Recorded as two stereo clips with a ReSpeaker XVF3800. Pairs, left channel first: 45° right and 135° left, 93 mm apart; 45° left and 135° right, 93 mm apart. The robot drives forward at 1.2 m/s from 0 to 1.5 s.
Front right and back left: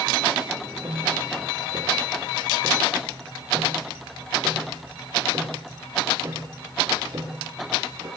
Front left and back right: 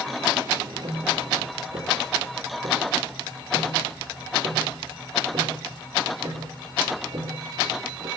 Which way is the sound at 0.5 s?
165° right.